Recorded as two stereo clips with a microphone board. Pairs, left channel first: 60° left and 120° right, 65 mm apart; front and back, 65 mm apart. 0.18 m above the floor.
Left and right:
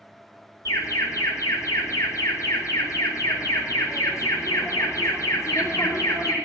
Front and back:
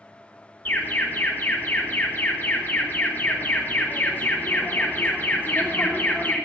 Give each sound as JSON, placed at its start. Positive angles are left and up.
{"t": 0.7, "sound": "an alarm", "azimuth_deg": 55, "distance_m": 4.0}